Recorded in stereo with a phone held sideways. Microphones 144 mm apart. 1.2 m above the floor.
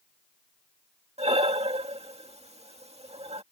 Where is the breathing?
45° right (ahead or behind).